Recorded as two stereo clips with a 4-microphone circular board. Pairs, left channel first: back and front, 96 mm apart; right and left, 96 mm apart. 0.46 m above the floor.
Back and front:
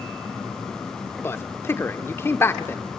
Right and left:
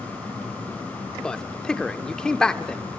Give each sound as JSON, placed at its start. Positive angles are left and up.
{"t": 1.2, "sound": "a man speaking", "azimuth_deg": -165, "distance_m": 0.9}